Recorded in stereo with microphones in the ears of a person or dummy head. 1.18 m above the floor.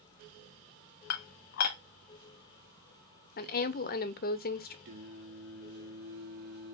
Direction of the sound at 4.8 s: 60° right (ahead or behind).